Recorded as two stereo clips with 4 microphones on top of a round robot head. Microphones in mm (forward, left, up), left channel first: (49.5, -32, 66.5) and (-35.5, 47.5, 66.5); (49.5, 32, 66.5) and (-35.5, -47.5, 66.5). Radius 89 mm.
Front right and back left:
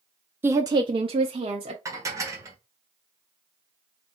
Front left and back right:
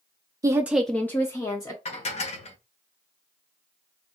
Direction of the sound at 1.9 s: 75° left.